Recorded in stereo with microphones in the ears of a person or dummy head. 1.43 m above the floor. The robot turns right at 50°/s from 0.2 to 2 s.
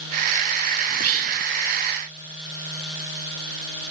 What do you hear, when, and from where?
0.9 s whispering: 75° right (ahead or behind); by 1.4 s 70° right (ahead or behind)